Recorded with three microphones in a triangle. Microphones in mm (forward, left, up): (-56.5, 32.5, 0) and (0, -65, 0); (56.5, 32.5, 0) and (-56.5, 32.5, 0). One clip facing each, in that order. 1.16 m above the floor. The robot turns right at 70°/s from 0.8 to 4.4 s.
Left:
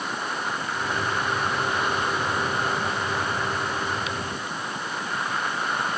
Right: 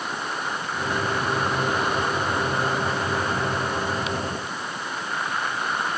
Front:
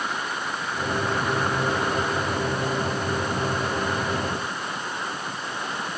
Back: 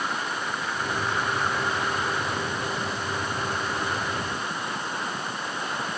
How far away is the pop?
No pop in this recording.